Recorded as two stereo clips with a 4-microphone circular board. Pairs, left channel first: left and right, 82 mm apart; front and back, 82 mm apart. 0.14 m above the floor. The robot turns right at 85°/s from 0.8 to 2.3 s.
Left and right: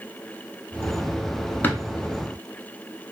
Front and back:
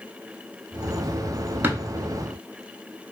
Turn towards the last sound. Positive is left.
turn(degrees=-170)